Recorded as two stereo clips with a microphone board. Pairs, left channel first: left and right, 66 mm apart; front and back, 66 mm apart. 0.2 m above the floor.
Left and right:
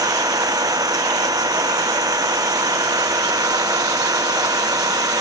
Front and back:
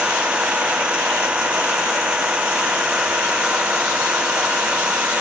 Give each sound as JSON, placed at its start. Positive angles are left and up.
{"t": 0.0, "sound": "an engine running", "azimuth_deg": -105}